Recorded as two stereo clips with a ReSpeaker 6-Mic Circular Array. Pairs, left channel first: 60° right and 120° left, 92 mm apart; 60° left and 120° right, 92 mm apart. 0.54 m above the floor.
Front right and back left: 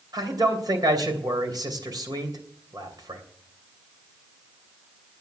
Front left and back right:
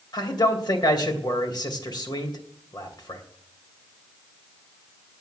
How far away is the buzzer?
No buzzer in this recording.